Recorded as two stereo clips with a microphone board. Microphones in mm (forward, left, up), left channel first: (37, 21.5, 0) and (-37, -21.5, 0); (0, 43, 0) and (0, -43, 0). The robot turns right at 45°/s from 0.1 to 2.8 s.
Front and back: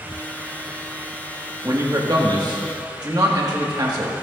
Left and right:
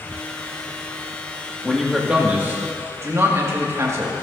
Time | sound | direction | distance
1.6 | a man speaking | 170° left | 1.6 m